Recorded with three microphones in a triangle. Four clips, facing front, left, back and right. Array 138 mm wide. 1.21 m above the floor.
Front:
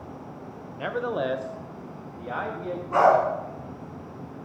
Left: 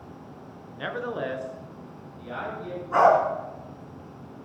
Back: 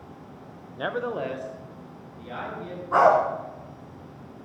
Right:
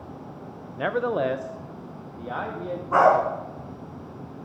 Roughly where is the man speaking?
Right.